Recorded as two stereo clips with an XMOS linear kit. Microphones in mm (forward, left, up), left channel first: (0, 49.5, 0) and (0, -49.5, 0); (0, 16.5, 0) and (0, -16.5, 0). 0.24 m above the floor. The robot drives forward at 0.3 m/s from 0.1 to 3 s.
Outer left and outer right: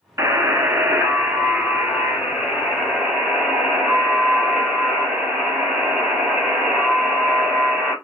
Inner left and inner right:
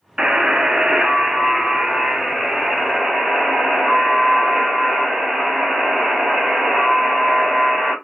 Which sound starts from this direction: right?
A buzzer, at 0.2 s.